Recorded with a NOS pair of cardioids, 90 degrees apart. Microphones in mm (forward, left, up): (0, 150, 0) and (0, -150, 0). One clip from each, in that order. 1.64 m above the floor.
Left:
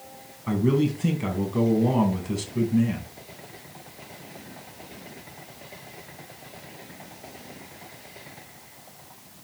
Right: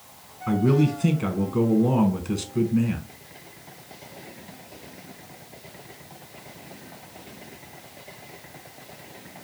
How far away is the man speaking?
About 1.4 m.